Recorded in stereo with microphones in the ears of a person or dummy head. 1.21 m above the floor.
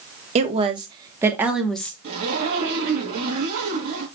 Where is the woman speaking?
40° right (ahead or behind), 2.0 m; by 1.9 s 5° left (ahead or behind), 1.7 m.